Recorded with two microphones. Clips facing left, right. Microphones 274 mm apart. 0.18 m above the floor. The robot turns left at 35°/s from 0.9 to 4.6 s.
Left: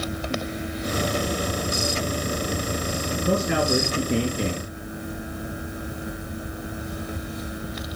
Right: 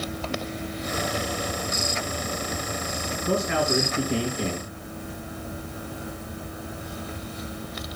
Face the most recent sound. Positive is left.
turn(degrees=20)